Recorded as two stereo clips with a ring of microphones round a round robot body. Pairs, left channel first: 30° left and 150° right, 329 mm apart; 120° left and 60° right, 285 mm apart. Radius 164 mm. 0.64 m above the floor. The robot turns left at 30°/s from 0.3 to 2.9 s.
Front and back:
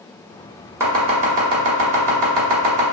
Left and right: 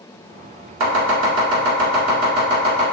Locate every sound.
0.8 s chopping: 70° right, 1.2 m; by 2.8 s 130° right, 1.2 m